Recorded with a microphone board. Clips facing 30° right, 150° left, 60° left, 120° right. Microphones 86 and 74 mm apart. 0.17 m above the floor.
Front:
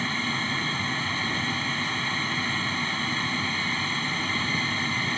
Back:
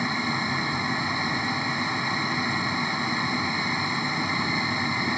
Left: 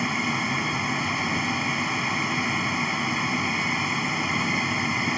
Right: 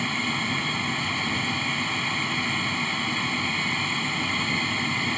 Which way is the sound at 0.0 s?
120° left.